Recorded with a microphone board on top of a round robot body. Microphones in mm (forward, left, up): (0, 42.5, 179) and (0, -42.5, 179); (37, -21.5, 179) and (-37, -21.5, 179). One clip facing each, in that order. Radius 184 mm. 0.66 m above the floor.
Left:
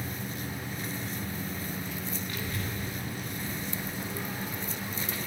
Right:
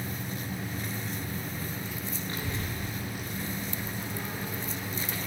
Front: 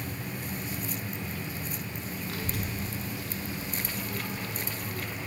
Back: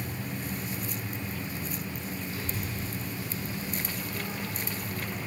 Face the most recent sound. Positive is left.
turn(degrees=10)